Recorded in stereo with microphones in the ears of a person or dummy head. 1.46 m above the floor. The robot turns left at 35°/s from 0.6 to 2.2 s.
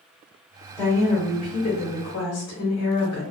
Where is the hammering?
I don't hear hammering.